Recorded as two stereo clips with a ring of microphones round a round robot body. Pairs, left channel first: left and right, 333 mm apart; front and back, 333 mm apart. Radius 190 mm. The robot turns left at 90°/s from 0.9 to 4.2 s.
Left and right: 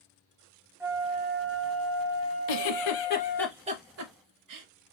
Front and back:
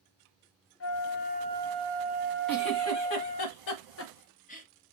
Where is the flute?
10° right, 0.7 m; by 3.5 s 115° left, 0.7 m.